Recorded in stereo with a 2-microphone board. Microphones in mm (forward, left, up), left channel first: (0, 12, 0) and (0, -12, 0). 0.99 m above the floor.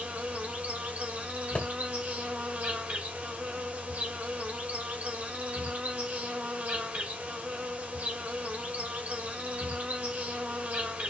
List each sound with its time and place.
0.0 s an insect: 75° right (ahead or behind), 2 m
1.6 s a thud: 55° left (ahead or behind), 1.3 m